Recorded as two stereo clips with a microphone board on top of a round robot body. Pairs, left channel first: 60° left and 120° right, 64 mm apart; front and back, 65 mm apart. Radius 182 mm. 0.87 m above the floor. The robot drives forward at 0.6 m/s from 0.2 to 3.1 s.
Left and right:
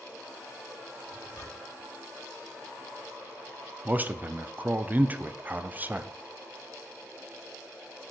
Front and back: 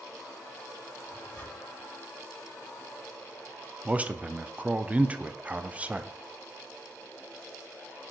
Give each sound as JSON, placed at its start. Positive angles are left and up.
{"t": 1.0, "sound": "a zipper", "azimuth_deg": 60, "distance_m": 3.5}
{"t": 3.9, "sound": "a man speaking", "azimuth_deg": -135, "distance_m": 0.7}